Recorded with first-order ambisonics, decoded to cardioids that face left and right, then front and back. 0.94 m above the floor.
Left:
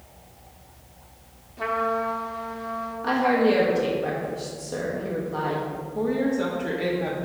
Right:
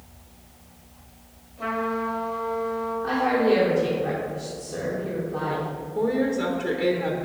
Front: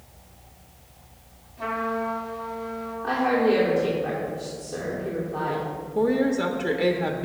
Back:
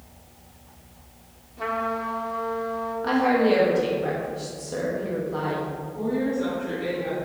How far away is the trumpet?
About 1.3 m.